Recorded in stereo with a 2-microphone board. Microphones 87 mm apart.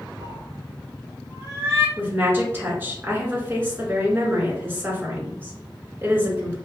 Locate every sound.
0.2 s a cat meowing: 35° right (ahead or behind), 0.9 m
2.0 s a woman speaking: 25° right (ahead or behind), 1.4 m